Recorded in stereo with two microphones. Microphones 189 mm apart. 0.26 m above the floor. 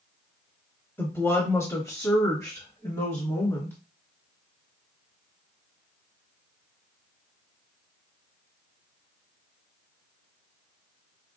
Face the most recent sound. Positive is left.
turn(degrees=15)  # may be behind; listen again after turning